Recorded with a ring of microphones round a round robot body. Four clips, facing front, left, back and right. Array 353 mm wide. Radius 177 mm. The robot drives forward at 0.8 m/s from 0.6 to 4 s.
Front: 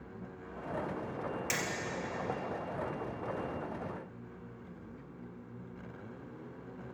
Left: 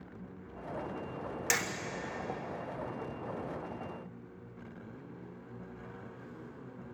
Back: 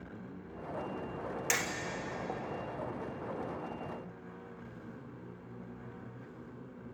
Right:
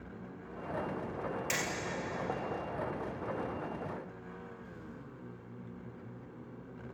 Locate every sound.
1.5 s hammering: 115° left, 1.9 m